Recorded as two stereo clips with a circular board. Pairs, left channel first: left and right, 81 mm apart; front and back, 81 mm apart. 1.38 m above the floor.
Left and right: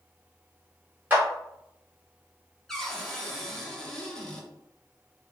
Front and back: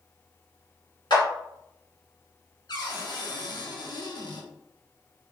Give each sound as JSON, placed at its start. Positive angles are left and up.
{"t": 1.1, "sound": "a clap", "azimuth_deg": -25, "distance_m": 1.4}
{"t": 2.7, "sound": "a cupboard door", "azimuth_deg": 5, "distance_m": 0.7}